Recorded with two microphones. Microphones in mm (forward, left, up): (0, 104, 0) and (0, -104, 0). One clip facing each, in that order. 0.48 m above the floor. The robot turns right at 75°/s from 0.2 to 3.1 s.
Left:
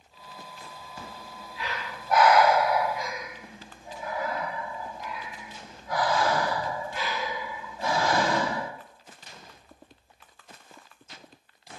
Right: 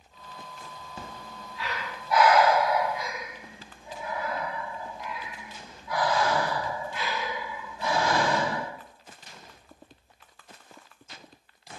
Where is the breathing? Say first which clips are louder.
Right 1 dB; 25° right (ahead or behind), 0.5 m; by 8.7 s 45° left (ahead or behind), 0.5 m.